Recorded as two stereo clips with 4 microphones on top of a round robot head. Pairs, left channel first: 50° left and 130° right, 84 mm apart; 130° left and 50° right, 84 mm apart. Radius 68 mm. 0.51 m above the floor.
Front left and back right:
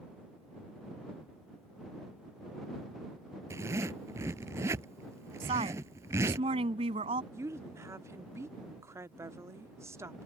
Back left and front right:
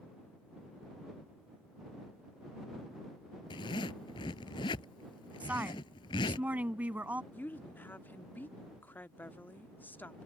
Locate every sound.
3.5 s a zipper: 170° left
5.4 s a woman speaking: 120° right
7.3 s a woman speaking: 170° right